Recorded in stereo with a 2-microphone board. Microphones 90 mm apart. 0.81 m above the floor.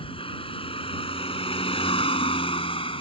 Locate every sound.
0.0 s a vehicle: 80° left